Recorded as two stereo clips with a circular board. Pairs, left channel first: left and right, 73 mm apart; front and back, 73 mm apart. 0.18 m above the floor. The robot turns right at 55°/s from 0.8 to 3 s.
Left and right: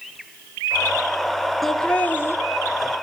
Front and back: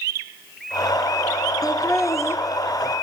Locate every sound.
1.6 s laughter: straight ahead, 2.5 m; by 2.4 s 45° left, 2.5 m